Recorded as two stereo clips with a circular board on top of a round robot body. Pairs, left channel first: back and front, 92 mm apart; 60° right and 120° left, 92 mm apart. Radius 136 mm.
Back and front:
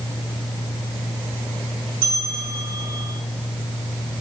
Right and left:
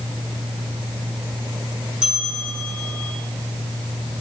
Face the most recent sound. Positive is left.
turn(degrees=40)